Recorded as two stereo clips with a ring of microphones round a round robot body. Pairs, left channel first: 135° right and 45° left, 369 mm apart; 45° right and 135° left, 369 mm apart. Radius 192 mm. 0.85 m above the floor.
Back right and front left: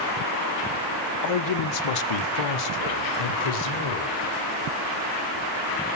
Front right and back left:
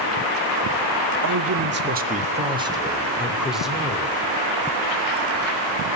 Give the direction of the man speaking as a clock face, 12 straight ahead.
6 o'clock.